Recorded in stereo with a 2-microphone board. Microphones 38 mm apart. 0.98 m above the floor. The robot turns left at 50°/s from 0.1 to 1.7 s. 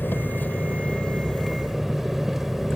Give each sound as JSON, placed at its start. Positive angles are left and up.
{"t": 0.0, "sound": "an engine running", "azimuth_deg": 70}